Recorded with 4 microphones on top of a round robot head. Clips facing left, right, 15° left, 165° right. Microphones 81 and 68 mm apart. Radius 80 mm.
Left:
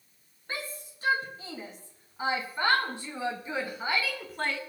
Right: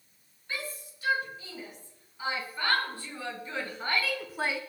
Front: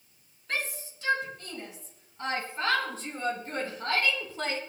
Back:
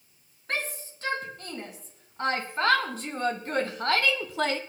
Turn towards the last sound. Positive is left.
turn(degrees=-170)